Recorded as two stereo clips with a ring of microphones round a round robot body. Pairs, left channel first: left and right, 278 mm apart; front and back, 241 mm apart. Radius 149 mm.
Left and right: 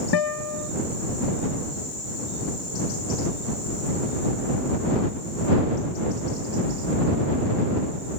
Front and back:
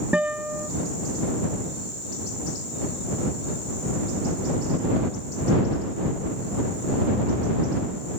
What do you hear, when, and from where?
0.1 s a guitar: 95° left